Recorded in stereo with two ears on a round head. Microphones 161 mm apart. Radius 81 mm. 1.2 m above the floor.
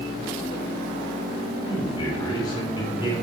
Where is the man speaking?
25° left (ahead or behind), 7.5 m.